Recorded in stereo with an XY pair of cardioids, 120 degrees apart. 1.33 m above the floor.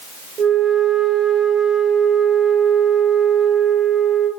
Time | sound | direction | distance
0.4 | a flute | 60° right | 3 m